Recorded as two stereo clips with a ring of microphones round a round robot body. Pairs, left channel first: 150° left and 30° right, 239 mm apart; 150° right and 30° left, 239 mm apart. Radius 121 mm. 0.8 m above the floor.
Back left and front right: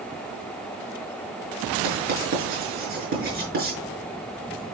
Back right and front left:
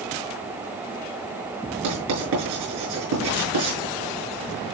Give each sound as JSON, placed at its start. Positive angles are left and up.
{"t": 1.8, "sound": "writing", "azimuth_deg": 25, "distance_m": 5.5}